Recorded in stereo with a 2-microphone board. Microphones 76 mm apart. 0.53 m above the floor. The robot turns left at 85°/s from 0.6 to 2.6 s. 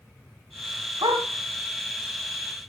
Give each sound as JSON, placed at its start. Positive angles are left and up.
{"t": 1.0, "sound": "a dog barking", "side_deg": -85, "distance_m": 2.0}